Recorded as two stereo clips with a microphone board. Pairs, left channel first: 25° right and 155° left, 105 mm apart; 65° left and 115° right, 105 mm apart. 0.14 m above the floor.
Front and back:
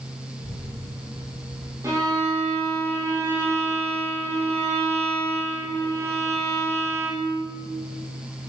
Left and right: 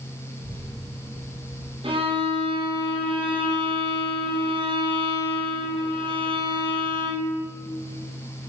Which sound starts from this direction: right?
A child speaking, at 0.4 s.